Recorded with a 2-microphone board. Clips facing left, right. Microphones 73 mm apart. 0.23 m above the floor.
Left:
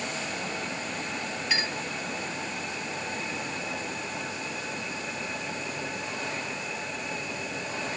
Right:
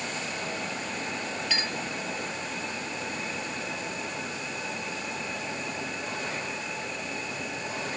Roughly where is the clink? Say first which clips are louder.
Left 3 dB; left.